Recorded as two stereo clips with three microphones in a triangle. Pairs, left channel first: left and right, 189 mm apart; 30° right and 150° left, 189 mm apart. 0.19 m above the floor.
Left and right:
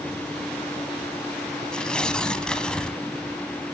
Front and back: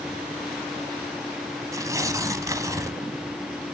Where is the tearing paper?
165° left, 0.9 m.